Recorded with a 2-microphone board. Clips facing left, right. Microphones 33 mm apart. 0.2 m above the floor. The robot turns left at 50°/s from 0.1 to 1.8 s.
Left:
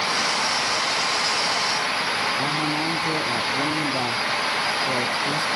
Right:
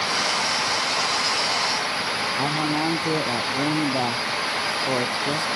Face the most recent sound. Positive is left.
turn(degrees=-20)  # may be behind; listen again after turning